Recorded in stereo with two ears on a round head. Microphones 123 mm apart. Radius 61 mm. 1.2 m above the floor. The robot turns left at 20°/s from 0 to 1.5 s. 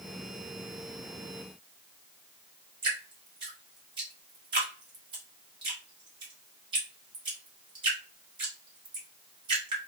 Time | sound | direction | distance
2.8 | dripping | 35° right (ahead or behind) | 1.6 m